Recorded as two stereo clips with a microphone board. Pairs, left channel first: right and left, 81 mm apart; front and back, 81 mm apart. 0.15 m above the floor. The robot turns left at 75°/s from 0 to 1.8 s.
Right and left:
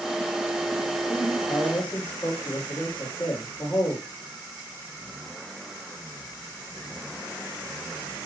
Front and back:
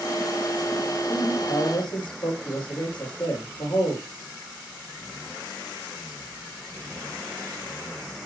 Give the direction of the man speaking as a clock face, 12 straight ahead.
11 o'clock.